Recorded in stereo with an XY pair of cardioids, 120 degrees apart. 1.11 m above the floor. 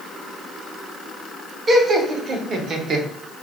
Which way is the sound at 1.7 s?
35° right.